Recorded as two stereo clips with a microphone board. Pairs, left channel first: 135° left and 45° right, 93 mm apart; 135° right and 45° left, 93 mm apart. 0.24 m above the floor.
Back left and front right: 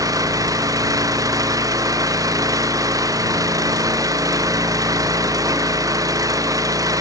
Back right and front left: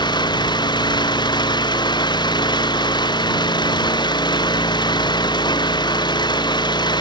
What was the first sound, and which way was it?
An engine running, 95° right.